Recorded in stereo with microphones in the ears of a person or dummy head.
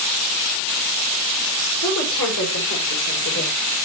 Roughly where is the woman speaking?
Left.